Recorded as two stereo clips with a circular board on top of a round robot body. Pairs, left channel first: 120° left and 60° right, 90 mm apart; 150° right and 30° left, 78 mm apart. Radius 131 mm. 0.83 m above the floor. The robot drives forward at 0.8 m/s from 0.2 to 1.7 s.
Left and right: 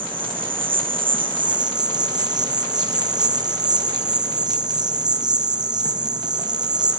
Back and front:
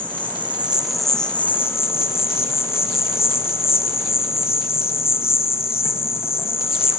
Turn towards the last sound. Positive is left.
turn(degrees=-95)